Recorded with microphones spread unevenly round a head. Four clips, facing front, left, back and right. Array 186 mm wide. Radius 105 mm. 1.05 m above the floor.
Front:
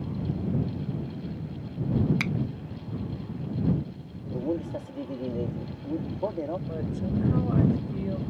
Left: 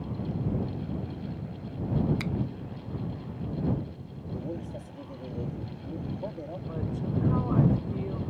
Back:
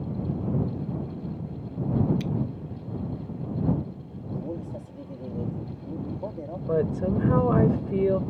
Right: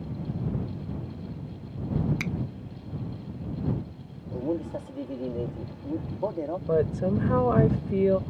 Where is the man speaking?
45° right.